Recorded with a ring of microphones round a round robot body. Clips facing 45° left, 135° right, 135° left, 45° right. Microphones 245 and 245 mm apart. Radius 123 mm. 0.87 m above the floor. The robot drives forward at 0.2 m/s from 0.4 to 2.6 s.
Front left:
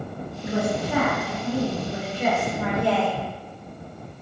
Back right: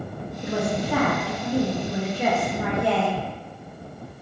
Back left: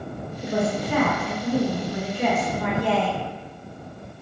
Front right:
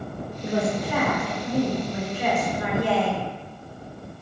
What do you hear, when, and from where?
0.4 s a woman speaking: 175° right, 1.0 m; by 3.2 s straight behind, 1.4 m